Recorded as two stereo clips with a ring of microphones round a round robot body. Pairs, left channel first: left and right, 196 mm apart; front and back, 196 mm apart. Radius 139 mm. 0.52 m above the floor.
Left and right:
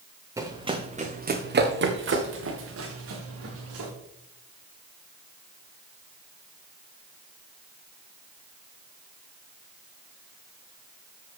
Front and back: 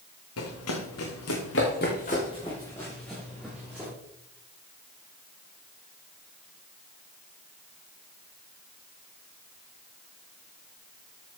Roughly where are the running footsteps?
Ahead.